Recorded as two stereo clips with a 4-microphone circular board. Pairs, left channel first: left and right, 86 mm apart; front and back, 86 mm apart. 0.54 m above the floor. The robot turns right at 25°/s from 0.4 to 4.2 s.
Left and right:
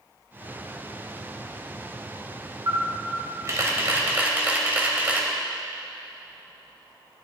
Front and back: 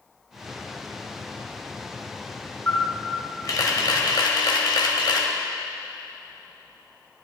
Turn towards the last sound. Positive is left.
turn(degrees=-20)